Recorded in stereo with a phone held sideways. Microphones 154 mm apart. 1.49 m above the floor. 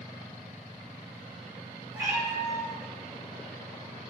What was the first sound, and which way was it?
A cat meowing, 20° right (ahead or behind).